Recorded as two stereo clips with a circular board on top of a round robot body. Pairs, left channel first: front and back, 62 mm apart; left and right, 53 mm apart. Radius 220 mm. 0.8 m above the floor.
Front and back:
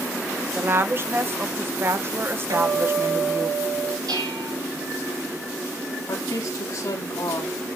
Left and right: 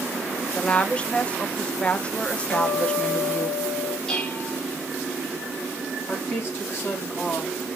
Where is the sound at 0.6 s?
150° left, 1.2 m.